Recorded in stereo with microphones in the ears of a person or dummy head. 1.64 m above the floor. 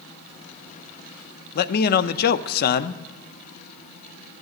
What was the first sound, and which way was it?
A man speaking, 60° left (ahead or behind).